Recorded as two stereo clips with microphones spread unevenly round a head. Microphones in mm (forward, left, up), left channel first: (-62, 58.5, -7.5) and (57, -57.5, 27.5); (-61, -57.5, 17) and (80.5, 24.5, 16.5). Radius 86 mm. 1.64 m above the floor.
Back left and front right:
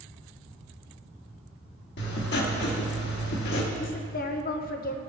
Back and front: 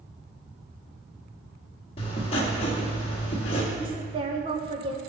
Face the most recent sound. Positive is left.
turn(degrees=90)